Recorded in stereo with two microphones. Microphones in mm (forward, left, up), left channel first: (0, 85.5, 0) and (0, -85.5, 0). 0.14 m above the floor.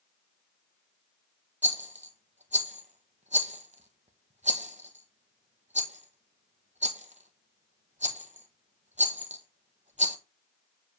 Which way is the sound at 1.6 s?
40° right (ahead or behind).